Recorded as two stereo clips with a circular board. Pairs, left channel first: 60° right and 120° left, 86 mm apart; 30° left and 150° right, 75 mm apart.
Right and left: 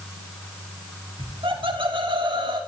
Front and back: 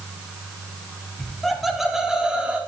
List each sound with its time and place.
1.2 s laughter: 110° left, 3 m; by 2.6 s 135° left, 3 m